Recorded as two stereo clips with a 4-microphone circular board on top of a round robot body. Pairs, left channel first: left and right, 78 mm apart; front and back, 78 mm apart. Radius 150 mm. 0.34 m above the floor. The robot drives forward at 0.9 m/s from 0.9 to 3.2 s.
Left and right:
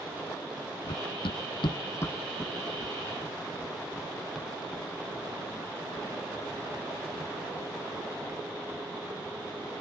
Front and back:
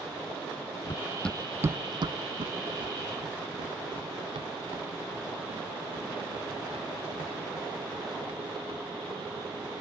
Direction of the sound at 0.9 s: 55° left.